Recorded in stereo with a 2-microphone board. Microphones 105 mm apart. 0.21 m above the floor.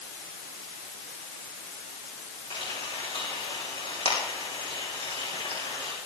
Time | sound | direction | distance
2.5 | frying | 80° left | 9.5 m